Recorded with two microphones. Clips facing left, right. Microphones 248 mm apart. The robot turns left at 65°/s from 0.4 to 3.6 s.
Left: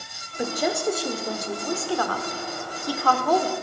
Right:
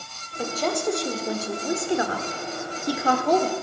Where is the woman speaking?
15° left (ahead or behind), 1.3 m; by 3.5 s 10° right (ahead or behind), 1.3 m.